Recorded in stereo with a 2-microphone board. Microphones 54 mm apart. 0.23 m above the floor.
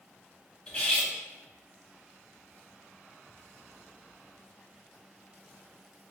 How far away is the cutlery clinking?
About 0.9 m.